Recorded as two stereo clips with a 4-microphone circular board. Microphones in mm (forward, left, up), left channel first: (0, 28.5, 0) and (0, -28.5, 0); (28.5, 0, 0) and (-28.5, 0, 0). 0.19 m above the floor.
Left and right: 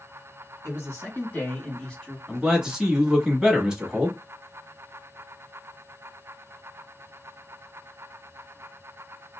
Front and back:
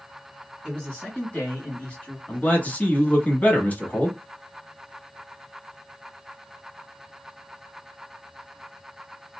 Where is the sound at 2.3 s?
20° right, 1.2 m.